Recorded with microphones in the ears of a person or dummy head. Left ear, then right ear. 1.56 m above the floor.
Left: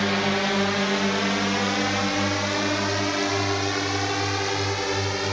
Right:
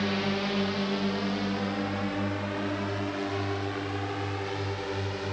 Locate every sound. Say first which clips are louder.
0.0 s a drone: left 7 dB; 30° left (ahead or behind); by 5.3 s 75° left (ahead or behind)